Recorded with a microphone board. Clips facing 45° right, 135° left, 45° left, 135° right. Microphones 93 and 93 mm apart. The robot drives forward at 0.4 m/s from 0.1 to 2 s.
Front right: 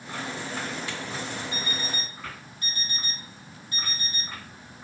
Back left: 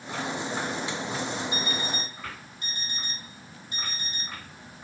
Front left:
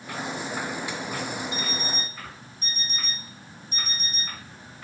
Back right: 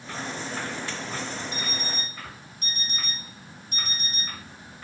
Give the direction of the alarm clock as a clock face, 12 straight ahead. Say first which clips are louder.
Back left 2 dB, front left 2 dB; 5 o'clock.